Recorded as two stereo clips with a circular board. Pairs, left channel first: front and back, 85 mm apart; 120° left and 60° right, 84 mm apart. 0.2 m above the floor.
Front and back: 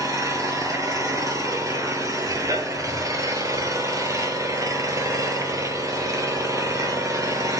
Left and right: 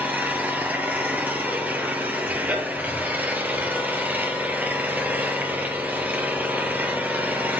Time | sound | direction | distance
0.0 | an engine running | 130° right | 1.4 m